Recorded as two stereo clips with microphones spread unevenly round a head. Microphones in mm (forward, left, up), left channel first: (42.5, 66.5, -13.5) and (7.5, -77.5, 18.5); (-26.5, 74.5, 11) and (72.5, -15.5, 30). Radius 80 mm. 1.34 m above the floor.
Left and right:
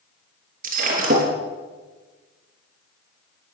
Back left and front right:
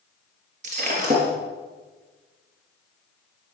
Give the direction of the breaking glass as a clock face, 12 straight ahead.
3 o'clock.